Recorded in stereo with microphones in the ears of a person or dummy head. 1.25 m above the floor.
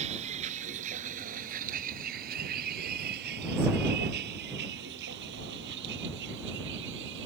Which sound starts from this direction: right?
A vehicle, at 0.0 s.